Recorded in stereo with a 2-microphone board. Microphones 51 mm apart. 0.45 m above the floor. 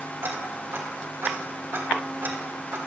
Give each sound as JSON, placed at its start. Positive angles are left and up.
{"t": 0.2, "sound": "ticking", "side_deg": -50, "distance_m": 2.0}